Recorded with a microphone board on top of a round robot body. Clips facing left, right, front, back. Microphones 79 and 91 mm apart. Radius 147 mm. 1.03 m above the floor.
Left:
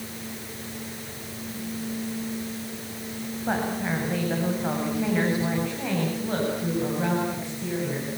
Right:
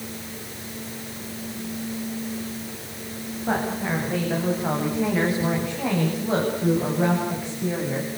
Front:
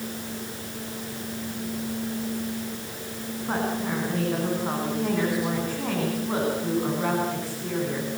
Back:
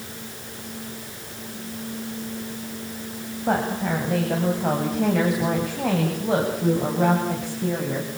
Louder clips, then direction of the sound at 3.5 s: Right 2 dB, back 4 dB; 175° left.